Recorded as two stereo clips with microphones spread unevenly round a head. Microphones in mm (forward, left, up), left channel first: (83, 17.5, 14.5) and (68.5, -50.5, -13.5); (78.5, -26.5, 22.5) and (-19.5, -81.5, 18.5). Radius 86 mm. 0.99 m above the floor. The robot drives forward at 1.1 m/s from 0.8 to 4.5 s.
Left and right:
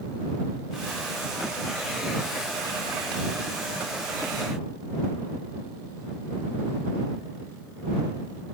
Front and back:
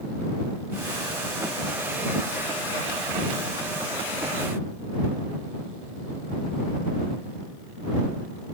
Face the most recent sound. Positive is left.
No sound to turn to.